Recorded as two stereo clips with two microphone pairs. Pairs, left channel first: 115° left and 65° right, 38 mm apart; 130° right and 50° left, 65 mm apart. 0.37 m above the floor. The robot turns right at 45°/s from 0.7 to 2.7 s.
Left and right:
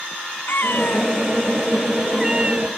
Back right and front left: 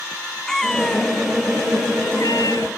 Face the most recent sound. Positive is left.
turn(degrees=-125)